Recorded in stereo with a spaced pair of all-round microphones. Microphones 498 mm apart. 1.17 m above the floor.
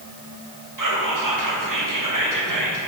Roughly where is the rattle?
I don't hear a rattle.